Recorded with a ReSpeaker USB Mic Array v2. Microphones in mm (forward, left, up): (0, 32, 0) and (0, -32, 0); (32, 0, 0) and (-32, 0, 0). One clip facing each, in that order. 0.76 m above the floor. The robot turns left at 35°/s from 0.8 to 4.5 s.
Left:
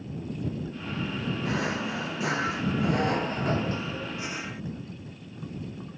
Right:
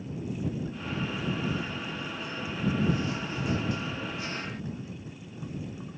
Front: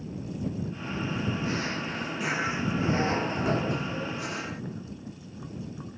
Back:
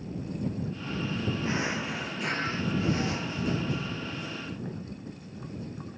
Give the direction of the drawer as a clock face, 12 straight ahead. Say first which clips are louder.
Left 4 dB, back 1 dB; 8 o'clock.